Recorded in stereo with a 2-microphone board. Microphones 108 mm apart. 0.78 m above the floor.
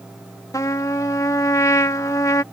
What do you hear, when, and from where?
0.5 s a trumpet: 30° left (ahead or behind)